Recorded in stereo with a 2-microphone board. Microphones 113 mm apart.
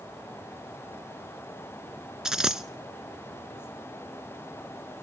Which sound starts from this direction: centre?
A dropped coin, at 2.2 s.